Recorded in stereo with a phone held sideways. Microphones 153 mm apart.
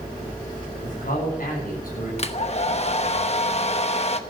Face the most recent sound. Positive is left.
turn(degrees=45)  # may be behind; listen again after turning